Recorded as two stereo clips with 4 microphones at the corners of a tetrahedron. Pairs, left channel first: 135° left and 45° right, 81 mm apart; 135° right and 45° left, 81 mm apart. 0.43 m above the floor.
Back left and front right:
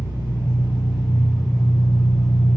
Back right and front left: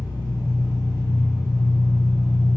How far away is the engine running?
About 1.8 m.